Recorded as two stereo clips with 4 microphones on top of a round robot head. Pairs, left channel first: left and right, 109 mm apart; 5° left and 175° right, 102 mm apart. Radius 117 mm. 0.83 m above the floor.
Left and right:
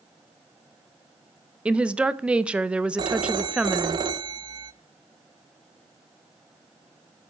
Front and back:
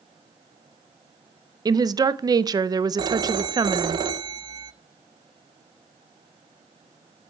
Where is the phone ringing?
135° right, 0.6 m.